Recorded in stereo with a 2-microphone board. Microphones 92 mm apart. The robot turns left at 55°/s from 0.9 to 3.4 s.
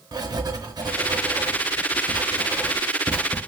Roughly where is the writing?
Right.